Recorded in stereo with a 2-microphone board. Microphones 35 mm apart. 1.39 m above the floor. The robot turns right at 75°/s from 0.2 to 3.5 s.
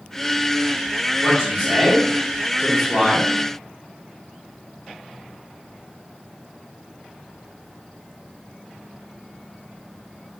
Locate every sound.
1.2 s a man speaking: 75° right, 1.3 m; by 3.3 s 85° left, 1.3 m